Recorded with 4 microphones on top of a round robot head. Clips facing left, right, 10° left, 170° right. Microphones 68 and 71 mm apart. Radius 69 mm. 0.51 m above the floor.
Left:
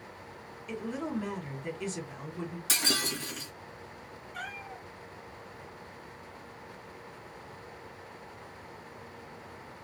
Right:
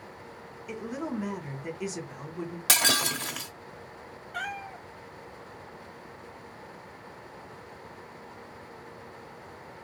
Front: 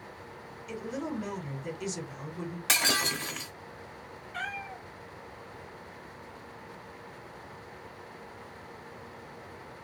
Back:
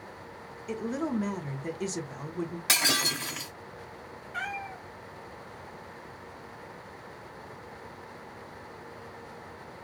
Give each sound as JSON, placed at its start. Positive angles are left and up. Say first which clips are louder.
{"t": 0.7, "sound": "a woman speaking", "louder": "right 1 dB, back 4 dB", "azimuth_deg": -165, "distance_m": 1.0}
{"t": 2.7, "sound": "breaking glass", "louder": "right 6 dB, front 1 dB", "azimuth_deg": -90, "distance_m": 1.2}
{"t": 4.3, "sound": "a cat meowing", "louder": "right 6 dB, back 2 dB", "azimuth_deg": -100, "distance_m": 0.8}